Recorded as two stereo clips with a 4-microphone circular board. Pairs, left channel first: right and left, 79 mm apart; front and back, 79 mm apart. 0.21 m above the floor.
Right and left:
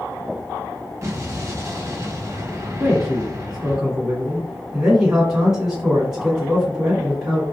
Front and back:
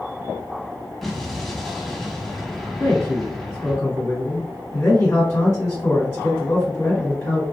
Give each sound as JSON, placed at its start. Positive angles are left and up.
{"t": 1.0, "sound": "an explosion", "azimuth_deg": 85, "distance_m": 0.7}
{"t": 2.8, "sound": "a man speaking", "azimuth_deg": 10, "distance_m": 1.5}